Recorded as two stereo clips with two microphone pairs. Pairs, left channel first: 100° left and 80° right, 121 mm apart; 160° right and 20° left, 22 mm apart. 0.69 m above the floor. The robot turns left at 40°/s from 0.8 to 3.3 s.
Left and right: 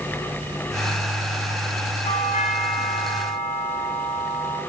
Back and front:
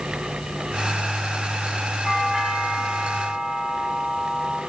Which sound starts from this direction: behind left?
A doorbell, at 2.0 s.